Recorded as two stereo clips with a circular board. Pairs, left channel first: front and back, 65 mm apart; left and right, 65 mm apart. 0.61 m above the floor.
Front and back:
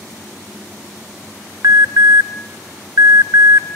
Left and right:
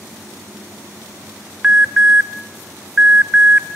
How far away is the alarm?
About 0.7 m.